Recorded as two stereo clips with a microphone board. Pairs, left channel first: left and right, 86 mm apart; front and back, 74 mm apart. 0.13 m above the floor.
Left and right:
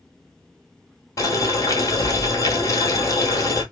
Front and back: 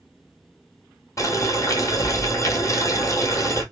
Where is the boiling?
45° left, 0.9 m.